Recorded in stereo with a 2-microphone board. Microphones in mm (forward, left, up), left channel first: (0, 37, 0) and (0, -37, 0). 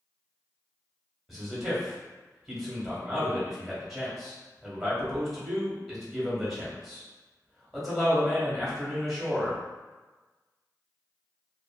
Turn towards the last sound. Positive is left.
turn(degrees=0)  # may be behind; listen again after turning